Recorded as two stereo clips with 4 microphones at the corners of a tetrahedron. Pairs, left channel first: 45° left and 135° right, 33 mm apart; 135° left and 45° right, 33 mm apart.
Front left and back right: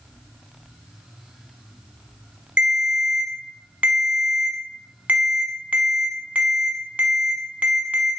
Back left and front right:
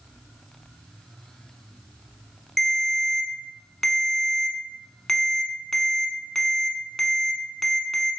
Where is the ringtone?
145° right, 0.6 m.